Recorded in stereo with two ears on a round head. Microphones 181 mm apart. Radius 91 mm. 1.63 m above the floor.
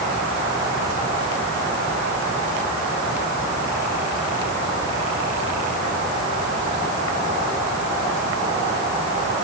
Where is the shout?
I don't hear a shout.